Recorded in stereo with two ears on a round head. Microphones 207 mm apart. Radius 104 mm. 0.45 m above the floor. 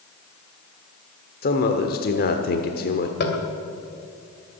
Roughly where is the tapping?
Left.